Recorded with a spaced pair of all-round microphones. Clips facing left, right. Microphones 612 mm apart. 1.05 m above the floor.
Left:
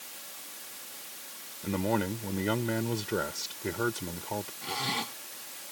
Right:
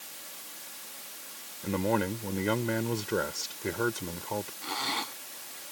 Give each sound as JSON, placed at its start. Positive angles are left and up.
{"t": 1.6, "sound": "a man speaking", "side_deg": 0}
{"t": 4.6, "sound": "a zipper", "side_deg": 55}